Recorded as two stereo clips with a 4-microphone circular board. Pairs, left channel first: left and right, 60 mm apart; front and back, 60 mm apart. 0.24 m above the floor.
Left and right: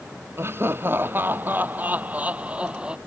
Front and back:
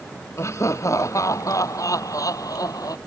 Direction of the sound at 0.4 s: 40° right.